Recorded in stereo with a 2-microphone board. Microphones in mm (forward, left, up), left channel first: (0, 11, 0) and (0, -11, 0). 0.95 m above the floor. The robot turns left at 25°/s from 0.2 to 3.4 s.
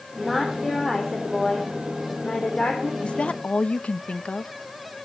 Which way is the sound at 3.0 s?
55° left (ahead or behind).